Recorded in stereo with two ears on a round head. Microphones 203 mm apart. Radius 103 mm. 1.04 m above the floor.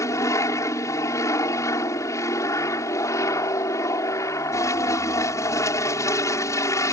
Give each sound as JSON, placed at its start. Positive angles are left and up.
{"t": 0.0, "sound": "an aircraft", "side_deg": 15}